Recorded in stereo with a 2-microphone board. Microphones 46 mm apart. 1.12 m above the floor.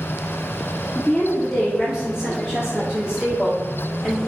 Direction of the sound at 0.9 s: 10° left (ahead or behind).